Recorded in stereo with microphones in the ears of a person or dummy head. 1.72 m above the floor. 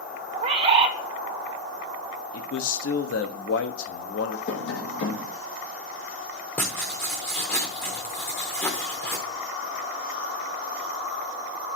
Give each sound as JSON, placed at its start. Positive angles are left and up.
{"t": 0.3, "sound": "a bird", "side_deg": -40, "distance_m": 1.2}
{"t": 2.3, "sound": "a man speaking", "side_deg": 85, "distance_m": 1.1}
{"t": 4.5, "sound": "tapping", "side_deg": 65, "distance_m": 1.6}
{"t": 6.6, "sound": "writing", "side_deg": 10, "distance_m": 0.9}